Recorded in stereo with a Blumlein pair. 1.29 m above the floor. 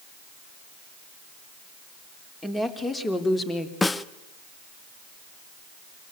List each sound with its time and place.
2.4 s a woman speaking: 10° left, 3.5 m; by 3.7 s 20° left, 3 m
3.8 s a snare drum: 10° left, 0.7 m